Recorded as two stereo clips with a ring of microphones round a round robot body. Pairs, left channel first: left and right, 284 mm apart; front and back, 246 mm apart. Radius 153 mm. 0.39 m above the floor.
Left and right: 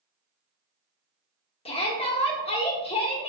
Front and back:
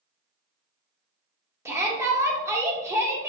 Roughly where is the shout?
Behind left.